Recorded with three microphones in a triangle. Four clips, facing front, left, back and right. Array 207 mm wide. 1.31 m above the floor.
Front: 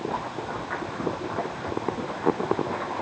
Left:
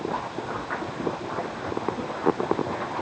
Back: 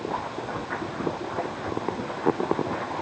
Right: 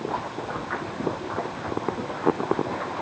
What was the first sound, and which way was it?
Only background noise.